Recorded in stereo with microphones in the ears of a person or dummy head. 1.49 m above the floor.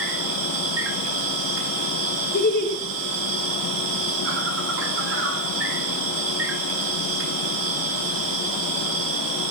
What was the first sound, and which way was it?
An insect, 70° right (ahead or behind).